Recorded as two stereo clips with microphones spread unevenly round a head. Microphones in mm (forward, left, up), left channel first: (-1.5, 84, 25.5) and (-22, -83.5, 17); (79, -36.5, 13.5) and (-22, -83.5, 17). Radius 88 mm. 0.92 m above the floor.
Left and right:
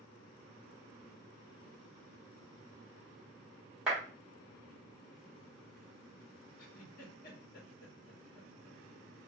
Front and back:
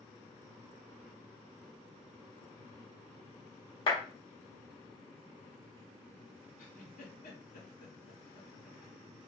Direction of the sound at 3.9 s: 15° right.